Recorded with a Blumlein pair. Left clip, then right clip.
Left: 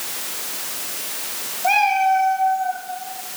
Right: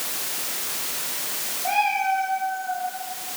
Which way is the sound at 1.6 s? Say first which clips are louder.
Left 6 dB; 35° left.